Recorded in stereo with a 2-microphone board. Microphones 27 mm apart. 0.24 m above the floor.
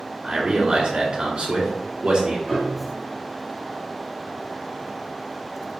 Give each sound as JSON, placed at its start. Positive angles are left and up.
{"t": 0.2, "sound": "a man speaking", "side_deg": -25, "distance_m": 1.5}
{"t": 2.5, "sound": "a piano", "side_deg": -5, "distance_m": 2.5}